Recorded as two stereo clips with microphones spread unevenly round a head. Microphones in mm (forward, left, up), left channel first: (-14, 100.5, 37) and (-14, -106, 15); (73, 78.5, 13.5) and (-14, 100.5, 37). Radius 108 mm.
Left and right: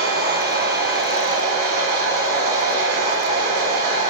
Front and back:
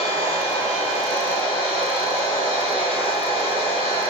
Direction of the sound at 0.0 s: 45° right.